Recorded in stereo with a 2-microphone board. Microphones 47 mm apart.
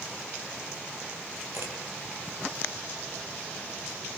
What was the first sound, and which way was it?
A camera shutter, 70° right (ahead or behind).